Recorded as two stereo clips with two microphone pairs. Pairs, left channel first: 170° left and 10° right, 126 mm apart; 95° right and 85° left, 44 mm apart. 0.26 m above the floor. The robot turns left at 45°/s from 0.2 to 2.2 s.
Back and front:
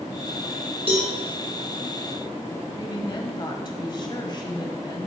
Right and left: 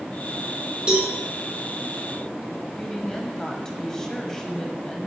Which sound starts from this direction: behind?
A woman speaking, at 2.8 s.